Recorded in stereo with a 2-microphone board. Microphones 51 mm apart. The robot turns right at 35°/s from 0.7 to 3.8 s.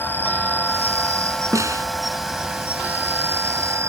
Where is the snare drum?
80° right; by 1.9 s 85° right.